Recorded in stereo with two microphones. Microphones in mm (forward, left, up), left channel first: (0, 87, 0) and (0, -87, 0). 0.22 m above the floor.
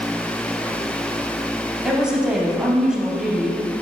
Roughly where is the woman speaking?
Centre.